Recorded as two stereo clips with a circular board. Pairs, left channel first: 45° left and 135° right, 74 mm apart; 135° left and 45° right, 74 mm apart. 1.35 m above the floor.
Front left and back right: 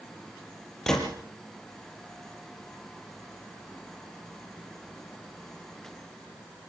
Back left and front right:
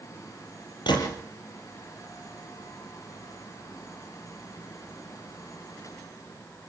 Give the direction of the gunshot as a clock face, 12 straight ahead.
8 o'clock.